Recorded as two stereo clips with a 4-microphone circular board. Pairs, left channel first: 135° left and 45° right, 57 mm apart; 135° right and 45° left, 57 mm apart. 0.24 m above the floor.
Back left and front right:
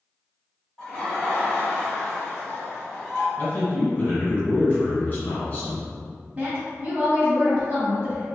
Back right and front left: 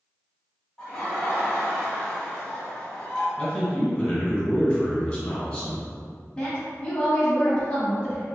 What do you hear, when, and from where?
0.8 s laughter: 175° left, 1.1 m
3.4 s a man speaking: 160° left, 1.2 m
6.3 s a woman speaking: 80° right, 1.1 m